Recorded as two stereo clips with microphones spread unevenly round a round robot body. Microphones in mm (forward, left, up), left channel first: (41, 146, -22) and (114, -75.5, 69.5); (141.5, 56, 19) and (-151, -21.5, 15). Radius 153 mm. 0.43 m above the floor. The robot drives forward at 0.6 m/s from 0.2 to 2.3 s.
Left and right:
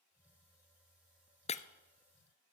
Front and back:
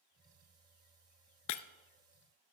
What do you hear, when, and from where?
1.5 s breaking glass: 30° left, 0.6 m; by 1.6 s 40° left, 0.6 m